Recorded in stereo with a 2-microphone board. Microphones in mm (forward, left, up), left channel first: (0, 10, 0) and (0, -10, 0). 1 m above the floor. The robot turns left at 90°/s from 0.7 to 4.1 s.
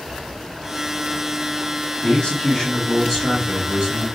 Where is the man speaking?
120° left, 2 m; by 4.0 s 60° right, 2 m.